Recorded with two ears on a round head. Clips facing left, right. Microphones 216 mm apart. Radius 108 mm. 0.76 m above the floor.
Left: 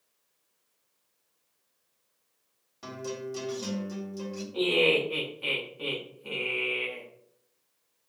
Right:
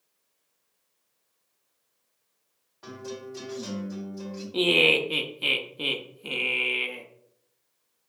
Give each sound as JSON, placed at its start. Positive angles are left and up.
{"t": 2.8, "sound": "a guitar", "side_deg": 45, "distance_m": 1.8}
{"t": 4.5, "sound": "laughter", "side_deg": -55, "distance_m": 0.8}